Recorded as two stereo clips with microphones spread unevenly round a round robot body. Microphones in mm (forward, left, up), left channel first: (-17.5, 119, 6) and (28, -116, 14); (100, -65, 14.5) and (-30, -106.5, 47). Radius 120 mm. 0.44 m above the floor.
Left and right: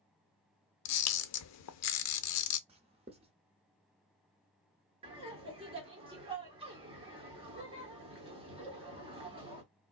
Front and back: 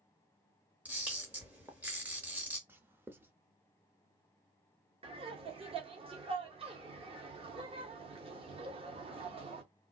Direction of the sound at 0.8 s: 110° left.